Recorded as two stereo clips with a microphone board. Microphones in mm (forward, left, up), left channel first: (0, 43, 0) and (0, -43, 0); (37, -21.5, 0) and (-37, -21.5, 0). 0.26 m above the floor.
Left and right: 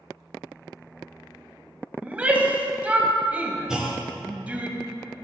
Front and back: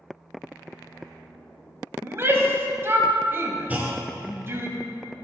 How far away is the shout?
About 1.4 m.